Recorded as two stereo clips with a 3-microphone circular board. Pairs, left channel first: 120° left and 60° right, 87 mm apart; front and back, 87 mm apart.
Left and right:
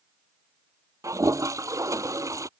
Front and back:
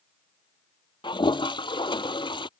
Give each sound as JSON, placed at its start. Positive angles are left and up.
{"t": 1.0, "sound": "a toilet flushing", "azimuth_deg": -10}